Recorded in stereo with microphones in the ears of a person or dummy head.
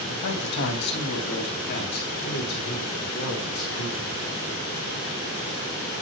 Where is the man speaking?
65° left (ahead or behind), 2 m; by 4.2 s 50° left (ahead or behind), 7 m.